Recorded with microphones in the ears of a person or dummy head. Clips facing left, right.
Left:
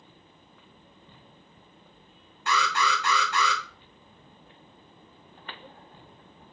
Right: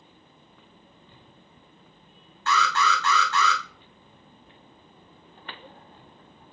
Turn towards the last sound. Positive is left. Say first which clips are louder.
# right 2 dB
turn(degrees=10)  # may be behind; listen again after turning